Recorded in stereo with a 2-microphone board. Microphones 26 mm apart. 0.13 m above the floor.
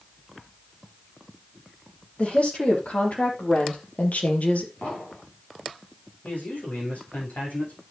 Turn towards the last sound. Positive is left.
turn(degrees=75)  # may be behind; listen again after turning